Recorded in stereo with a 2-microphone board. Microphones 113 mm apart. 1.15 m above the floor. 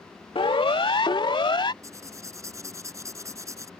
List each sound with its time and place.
0.3 s a siren: 55° left (ahead or behind); by 1.7 s 45° left (ahead or behind)
1.8 s writing: 30° right (ahead or behind)